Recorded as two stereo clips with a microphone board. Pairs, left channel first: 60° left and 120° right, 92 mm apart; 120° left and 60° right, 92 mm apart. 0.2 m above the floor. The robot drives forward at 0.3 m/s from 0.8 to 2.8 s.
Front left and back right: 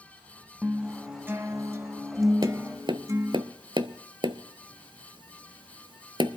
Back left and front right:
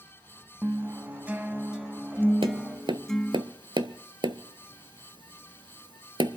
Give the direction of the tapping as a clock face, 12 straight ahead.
3 o'clock.